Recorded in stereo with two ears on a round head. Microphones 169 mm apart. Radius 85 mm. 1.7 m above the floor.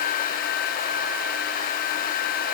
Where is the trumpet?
I don't hear a trumpet.